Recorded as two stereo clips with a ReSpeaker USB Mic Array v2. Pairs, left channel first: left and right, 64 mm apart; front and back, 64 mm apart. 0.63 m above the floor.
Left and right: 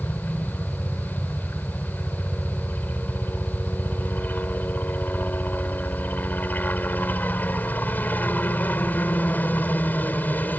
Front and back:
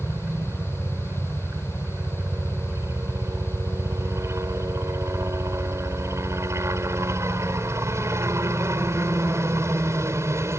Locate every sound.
0.0 s a helicopter: 145° left